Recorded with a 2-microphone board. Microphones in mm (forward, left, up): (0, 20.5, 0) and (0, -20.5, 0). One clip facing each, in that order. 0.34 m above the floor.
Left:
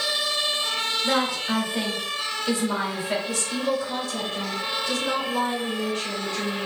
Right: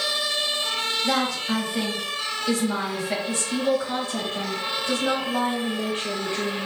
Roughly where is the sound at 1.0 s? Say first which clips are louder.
Left 1 dB; left.